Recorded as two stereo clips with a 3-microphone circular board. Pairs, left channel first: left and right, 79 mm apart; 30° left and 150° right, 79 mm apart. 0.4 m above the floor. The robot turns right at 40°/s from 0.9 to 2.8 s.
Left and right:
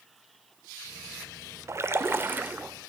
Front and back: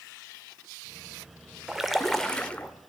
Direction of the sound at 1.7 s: 70° right.